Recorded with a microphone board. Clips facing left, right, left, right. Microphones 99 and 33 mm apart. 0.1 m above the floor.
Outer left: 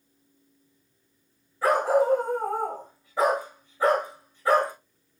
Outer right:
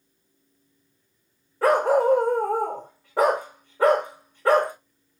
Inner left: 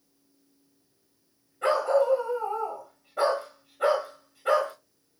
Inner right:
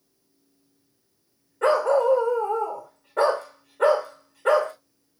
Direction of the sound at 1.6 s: 60° right (ahead or behind).